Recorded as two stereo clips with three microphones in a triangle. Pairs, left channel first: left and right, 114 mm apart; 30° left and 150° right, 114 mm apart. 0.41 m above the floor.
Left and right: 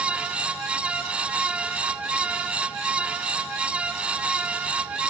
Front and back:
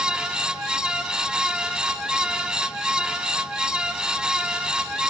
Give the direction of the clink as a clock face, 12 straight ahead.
No clink in this recording.